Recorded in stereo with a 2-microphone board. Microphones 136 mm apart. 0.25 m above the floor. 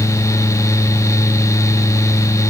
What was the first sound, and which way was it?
Only background noise.